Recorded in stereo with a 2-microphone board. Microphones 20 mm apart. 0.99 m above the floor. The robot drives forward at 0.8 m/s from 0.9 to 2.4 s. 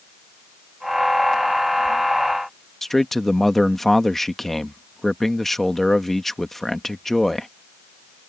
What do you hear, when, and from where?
2.8 s a man speaking: 15° left (ahead or behind)